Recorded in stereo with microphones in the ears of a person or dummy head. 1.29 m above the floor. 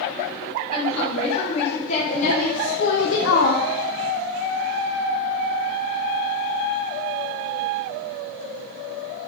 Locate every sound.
0.7 s a woman speaking: 35° left (ahead or behind), 2 m; by 3.6 s 50° left (ahead or behind), 0.6 m